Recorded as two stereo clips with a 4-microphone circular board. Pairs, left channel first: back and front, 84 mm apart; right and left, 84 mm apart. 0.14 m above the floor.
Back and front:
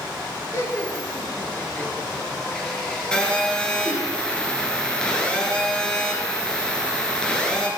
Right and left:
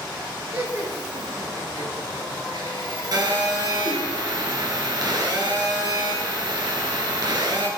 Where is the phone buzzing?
105° left, 2 m.